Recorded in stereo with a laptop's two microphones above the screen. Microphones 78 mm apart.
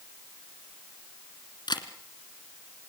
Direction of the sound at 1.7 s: 70° left (ahead or behind).